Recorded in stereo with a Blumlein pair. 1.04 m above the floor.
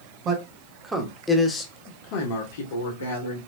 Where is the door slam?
No door slam in this recording.